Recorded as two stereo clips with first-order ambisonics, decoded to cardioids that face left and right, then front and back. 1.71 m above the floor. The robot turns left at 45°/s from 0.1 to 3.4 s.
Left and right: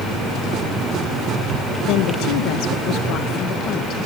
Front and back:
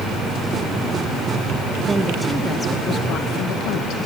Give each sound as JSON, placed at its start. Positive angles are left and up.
{"t": 1.9, "sound": "a woman speaking", "azimuth_deg": 105, "distance_m": 2.0}